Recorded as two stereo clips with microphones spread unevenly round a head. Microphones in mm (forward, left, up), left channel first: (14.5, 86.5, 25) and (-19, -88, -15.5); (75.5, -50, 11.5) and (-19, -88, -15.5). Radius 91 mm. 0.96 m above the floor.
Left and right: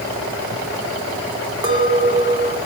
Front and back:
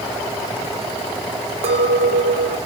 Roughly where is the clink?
Behind.